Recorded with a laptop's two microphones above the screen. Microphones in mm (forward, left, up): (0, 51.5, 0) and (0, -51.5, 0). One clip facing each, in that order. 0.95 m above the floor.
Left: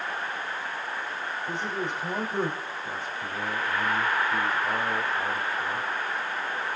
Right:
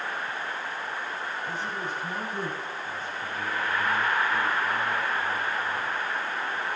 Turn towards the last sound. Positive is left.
turn(degrees=65)  # may be behind; listen again after turning